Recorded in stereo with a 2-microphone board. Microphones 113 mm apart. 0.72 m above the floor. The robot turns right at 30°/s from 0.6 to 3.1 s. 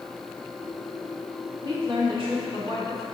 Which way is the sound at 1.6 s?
135° right.